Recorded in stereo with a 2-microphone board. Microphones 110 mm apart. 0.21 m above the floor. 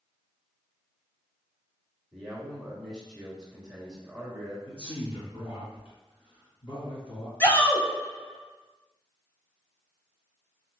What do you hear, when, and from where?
2.1 s a man speaking: 5° left (ahead or behind), 1.3 m
4.7 s a man speaking: 55° left (ahead or behind), 2.0 m
7.4 s a shout: 20° left (ahead or behind), 1.0 m